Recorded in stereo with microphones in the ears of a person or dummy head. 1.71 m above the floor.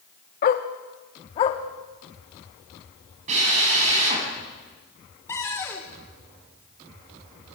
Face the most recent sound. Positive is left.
turn(degrees=15)  # may be behind; listen again after turning